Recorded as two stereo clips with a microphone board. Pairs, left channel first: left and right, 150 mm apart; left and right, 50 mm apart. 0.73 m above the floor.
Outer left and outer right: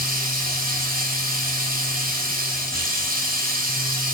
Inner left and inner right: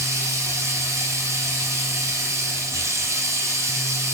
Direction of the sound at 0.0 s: 80° right.